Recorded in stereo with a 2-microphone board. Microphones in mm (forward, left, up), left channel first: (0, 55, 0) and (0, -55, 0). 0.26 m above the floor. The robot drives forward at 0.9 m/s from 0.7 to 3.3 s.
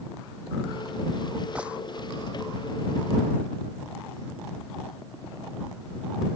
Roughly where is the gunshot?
Centre.